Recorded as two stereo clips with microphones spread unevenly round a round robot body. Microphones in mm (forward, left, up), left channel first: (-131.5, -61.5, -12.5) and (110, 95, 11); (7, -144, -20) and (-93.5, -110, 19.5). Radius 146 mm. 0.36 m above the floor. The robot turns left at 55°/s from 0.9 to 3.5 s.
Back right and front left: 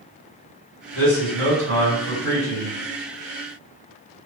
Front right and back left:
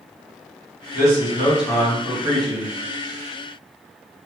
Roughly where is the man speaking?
Ahead right.